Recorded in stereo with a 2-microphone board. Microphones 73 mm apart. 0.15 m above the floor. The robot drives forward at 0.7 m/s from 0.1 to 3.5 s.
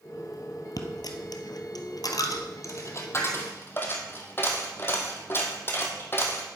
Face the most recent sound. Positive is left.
turn(degrees=35)  # may be behind; listen again after turning